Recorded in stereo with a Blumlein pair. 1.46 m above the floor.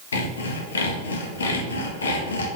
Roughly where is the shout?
I don't hear a shout.